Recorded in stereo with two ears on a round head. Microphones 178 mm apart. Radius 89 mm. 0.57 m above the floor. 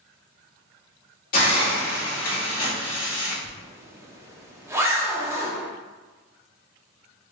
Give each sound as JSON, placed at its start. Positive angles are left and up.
{"t": 1.3, "sound": "a hiss", "side_deg": 45, "distance_m": 1.7}
{"t": 3.4, "sound": "a zipper", "side_deg": -15, "distance_m": 0.6}